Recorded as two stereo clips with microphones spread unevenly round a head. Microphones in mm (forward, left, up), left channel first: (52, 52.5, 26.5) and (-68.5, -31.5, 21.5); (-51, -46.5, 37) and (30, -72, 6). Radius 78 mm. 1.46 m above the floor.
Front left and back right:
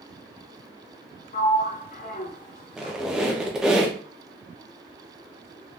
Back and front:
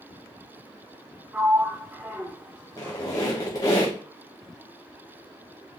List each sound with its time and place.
1.3 s a sliding door: 30° left, 0.5 m
2.8 s a squeak: 130° left, 0.5 m